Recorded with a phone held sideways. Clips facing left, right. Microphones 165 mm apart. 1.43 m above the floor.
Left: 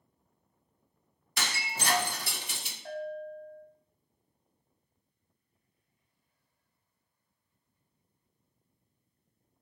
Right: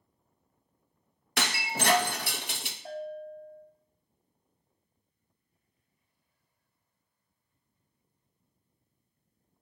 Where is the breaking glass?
65° right (ahead or behind), 1.1 m.